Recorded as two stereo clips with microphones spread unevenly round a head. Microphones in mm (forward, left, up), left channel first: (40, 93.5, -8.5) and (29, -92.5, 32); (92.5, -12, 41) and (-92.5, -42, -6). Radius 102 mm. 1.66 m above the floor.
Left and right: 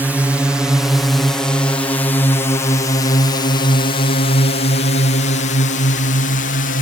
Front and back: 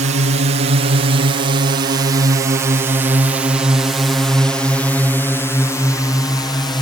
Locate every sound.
0.0 s a drone: 175° left; by 6.8 s 85° left